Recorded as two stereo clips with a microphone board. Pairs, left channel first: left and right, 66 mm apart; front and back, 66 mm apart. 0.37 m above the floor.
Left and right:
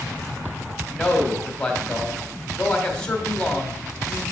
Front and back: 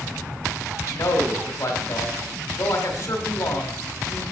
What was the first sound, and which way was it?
A man speaking, 15° left.